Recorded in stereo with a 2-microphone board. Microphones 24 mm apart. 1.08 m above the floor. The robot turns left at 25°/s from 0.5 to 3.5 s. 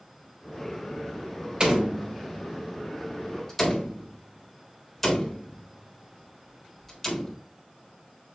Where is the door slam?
35° right (ahead or behind), 3 m; by 7.4 s 10° left (ahead or behind), 3 m.